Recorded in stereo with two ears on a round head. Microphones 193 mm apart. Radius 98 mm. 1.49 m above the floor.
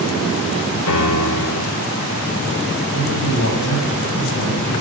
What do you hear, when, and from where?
0.9 s a piano: 80° left, 3.5 m
2.9 s a man speaking: 80° left, 7.5 m